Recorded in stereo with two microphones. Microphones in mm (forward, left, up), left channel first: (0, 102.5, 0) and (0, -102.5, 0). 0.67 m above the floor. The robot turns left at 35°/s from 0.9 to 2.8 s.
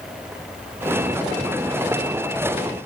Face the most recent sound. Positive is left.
No sound to turn to.